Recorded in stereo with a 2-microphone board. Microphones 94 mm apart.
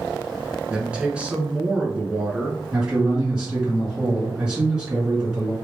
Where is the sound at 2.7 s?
15° right (ahead or behind), 1.6 m.